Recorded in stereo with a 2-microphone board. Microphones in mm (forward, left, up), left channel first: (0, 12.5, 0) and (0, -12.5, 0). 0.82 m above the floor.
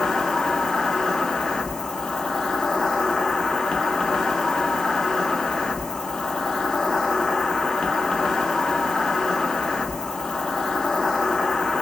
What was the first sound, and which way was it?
An insect, 25° left (ahead or behind).